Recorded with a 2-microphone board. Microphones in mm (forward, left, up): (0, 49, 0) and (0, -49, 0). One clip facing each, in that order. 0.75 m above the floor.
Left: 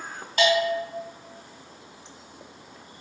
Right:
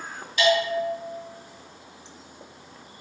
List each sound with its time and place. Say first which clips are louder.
0.4 s a bell: even; 45° left (ahead or behind), 1.6 m